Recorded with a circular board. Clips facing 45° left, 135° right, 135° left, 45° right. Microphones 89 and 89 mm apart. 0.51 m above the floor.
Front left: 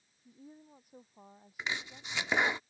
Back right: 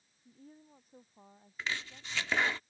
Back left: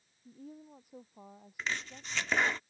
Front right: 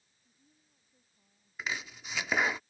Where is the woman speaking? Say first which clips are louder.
Front left 2 dB, back left 22 dB; 125° left; by 2.6 s 120° left.